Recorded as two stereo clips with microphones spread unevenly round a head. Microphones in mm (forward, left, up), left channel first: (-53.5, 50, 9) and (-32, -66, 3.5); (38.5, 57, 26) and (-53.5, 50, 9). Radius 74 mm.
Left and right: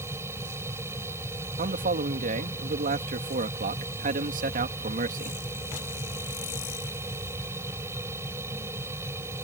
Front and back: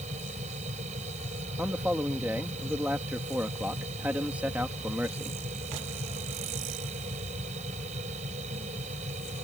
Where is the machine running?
150° right.